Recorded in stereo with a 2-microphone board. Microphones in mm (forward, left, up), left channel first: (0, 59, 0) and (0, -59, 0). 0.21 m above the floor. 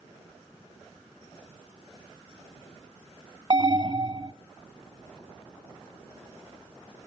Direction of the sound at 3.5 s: 40° right (ahead or behind).